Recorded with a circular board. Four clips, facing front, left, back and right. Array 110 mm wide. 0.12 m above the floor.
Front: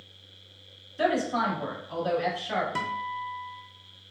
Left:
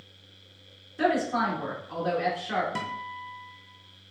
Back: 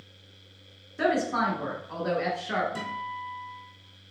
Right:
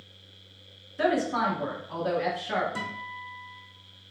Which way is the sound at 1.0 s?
Straight behind.